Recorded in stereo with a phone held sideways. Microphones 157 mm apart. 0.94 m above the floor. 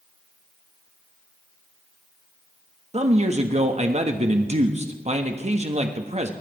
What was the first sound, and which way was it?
A man speaking, 45° right (ahead or behind).